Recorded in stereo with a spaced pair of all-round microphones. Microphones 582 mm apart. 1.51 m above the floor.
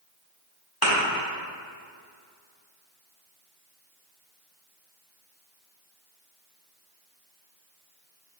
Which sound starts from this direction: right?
A thud, at 0.8 s.